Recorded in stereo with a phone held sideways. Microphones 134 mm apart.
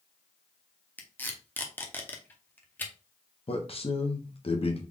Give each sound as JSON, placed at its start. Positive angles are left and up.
{"t": 1.0, "sound": "tape being pulled", "side_deg": 15, "distance_m": 0.7}
{"t": 3.5, "sound": "a man speaking", "side_deg": 45, "distance_m": 1.0}